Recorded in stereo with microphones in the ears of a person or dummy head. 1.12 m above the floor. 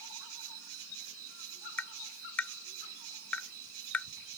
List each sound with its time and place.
0.0 s an insect: 70° right (ahead or behind)
1.8 s tapping: 10° left (ahead or behind)